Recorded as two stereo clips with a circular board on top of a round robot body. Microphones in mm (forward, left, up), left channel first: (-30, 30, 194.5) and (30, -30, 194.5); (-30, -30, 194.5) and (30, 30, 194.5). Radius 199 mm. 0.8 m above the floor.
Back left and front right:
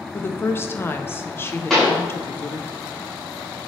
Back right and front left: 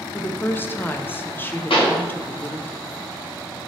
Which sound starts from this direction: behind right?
A pop, at 1.7 s.